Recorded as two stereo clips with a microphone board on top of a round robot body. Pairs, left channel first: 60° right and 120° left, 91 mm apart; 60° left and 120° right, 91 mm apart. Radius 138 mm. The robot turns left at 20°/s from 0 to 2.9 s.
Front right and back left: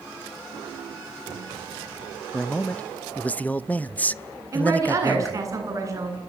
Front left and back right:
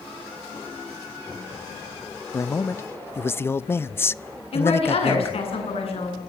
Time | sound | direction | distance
2.3 | a man speaking | 20° left | 0.8 m
4.5 | a woman speaking | 65° left | 8 m